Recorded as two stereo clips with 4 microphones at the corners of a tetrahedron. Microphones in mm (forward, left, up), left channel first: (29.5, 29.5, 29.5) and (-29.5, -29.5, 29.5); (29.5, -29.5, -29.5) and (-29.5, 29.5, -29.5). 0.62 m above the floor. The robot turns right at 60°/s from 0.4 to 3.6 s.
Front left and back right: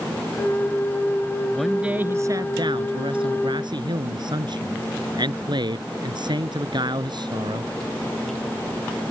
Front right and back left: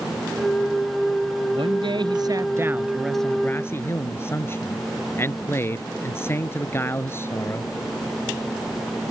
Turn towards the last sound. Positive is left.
turn(degrees=-105)